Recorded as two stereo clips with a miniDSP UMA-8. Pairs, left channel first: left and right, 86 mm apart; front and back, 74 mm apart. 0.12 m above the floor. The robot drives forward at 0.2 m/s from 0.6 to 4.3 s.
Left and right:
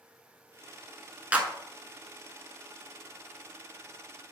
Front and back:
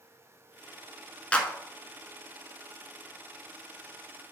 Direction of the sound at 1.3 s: 45° right.